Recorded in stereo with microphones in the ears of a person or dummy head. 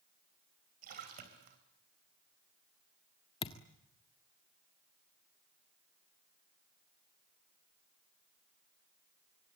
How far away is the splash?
About 3.5 m.